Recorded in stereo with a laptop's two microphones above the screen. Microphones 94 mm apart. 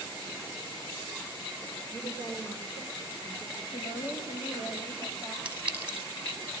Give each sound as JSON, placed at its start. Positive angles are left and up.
{"t": 1.9, "sound": "a woman speaking", "side_deg": 60, "distance_m": 4.5}
{"t": 3.7, "sound": "a woman speaking", "side_deg": 65, "distance_m": 5.5}
{"t": 5.5, "sound": "a clink", "side_deg": -15, "distance_m": 6.0}